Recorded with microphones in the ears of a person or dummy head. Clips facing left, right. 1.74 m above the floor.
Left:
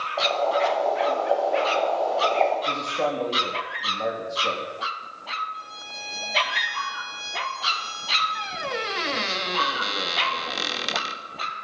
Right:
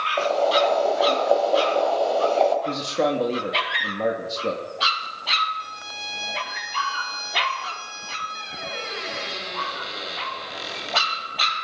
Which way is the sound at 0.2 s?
45° right (ahead or behind).